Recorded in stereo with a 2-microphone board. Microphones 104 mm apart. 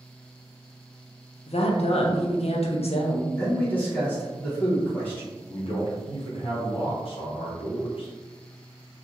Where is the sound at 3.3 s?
15° left (ahead or behind), 1.4 m.